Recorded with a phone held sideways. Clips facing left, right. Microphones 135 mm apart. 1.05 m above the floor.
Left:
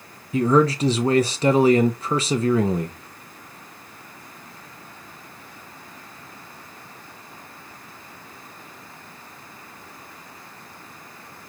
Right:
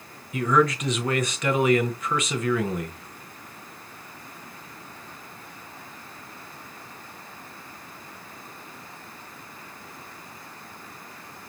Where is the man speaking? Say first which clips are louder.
Left 4 dB; 30° left (ahead or behind), 0.5 m.